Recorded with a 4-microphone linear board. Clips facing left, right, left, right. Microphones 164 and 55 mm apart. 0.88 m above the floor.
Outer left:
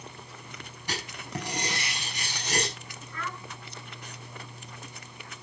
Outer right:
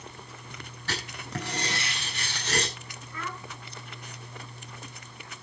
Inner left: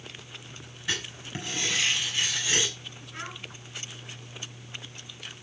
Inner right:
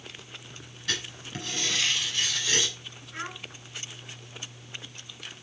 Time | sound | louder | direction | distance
0.9 | writing | even, inner left 1 dB | 15° left (ahead or behind) | 5.5 m
3.1 | a child speaking | even, inner right 2 dB | 5° right (ahead or behind) | 7 m